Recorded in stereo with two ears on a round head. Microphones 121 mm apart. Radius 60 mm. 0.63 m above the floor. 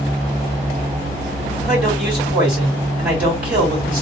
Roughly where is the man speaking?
Centre.